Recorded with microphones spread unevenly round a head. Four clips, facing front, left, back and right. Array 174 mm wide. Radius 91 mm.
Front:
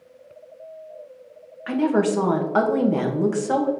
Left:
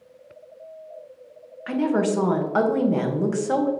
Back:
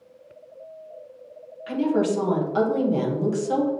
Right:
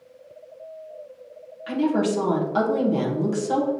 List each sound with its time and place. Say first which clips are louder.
1.7 s a woman speaking: even, front 2 dB; 15° left, 1.5 m